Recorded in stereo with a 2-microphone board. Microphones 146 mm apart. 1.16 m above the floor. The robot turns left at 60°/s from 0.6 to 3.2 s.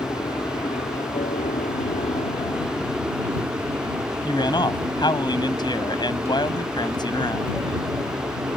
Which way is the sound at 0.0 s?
30° left (ahead or behind).